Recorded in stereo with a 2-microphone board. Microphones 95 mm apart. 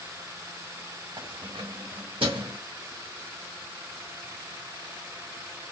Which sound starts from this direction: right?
Keys jangling, at 1.2 s.